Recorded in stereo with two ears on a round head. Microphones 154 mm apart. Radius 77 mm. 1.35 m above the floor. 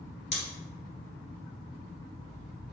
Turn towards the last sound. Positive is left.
turn(degrees=35)  # may be behind; listen again after turning